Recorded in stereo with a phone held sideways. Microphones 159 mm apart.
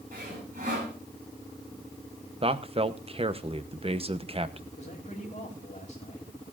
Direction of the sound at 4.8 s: 45° left (ahead or behind).